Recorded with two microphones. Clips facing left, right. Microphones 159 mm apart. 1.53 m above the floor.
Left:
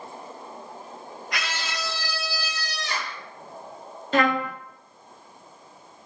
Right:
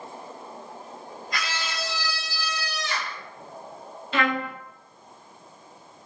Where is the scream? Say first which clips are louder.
Even; 75° left (ahead or behind), 0.7 m; by 3.2 s 30° left (ahead or behind), 1.4 m.